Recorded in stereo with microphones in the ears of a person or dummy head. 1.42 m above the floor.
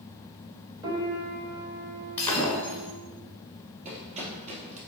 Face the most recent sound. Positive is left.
turn(degrees=-40)  # may be behind; listen again after turning